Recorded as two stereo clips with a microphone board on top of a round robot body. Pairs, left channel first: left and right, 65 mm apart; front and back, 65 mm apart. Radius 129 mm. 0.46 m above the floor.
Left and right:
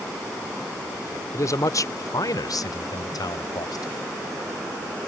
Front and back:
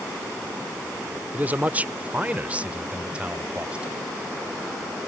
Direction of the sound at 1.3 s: 120° left.